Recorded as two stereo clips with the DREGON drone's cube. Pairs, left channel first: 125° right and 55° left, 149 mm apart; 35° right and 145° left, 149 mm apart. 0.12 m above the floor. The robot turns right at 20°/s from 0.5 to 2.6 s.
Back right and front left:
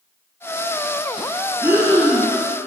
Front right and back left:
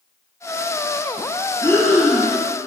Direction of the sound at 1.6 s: 5° left.